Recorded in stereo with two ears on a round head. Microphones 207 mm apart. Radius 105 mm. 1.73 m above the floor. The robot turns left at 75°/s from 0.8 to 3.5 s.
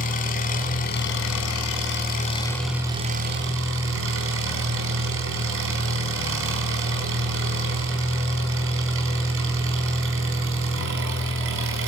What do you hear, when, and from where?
0.0 s an engine running: 140° left, 4.5 m; by 11.9 s 65° right, 4.5 m